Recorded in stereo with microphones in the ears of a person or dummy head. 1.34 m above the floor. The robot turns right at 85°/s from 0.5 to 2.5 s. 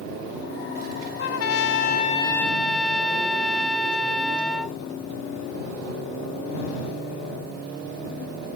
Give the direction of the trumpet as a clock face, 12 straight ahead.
10 o'clock.